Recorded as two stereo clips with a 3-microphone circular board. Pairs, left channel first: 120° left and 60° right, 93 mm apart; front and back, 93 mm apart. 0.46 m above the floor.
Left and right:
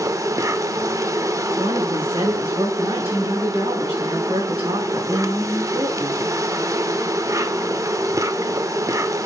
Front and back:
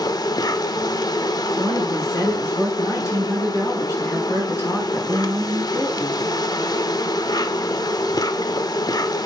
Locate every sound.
0.0 s an insect: 20° right, 0.8 m
1.6 s a woman speaking: 60° right, 5 m